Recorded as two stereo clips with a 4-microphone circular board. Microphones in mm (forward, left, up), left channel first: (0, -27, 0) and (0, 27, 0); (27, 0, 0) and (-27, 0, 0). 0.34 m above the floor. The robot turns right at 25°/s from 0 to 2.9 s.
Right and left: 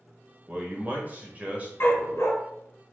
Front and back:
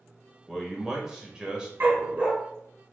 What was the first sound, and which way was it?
A man speaking, 95° left.